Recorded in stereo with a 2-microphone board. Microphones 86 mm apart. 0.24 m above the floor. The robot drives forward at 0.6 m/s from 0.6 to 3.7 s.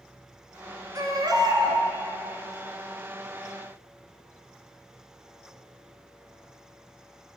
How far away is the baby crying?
About 1.2 m.